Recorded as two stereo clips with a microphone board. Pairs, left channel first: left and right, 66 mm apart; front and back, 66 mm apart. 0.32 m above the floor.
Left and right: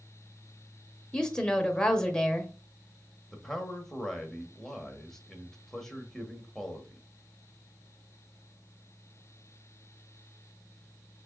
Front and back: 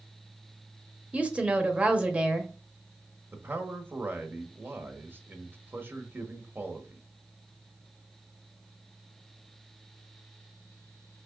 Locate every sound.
1.1 s a woman speaking: 150° left, 0.9 m
3.3 s a man speaking: 170° left, 1.1 m